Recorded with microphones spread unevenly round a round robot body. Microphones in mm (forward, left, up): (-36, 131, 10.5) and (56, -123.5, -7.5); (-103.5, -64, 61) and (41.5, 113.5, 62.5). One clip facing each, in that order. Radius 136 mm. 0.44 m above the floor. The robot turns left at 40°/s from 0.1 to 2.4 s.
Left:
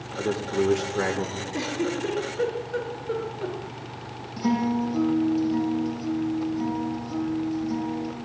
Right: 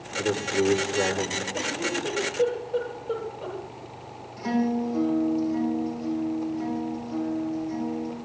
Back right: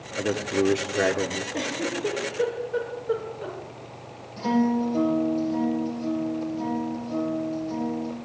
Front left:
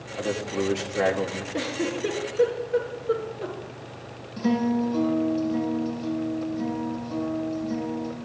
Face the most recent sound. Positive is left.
turn(degrees=120)